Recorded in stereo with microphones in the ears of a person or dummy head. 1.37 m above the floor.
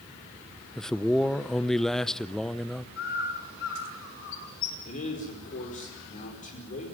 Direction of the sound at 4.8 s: 40° left (ahead or behind).